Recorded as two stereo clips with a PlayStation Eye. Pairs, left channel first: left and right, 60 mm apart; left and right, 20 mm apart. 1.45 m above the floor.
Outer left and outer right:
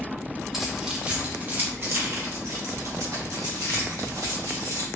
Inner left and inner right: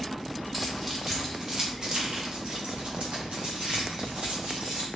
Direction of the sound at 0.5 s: 5° right (ahead or behind).